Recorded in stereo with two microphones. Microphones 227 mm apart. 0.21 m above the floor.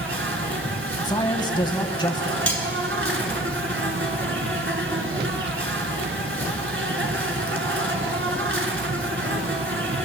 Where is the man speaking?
20° left (ahead or behind), 1.0 m.